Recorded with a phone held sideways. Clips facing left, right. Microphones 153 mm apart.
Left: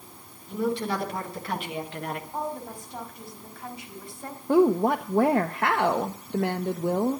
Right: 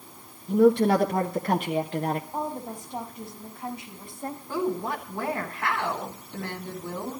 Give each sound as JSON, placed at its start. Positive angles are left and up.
{"t": 0.5, "sound": "a woman speaking", "side_deg": -55, "distance_m": 1.7}
{"t": 2.3, "sound": "a woman speaking", "side_deg": -20, "distance_m": 4.5}
{"t": 4.5, "sound": "a woman speaking", "side_deg": 55, "distance_m": 0.9}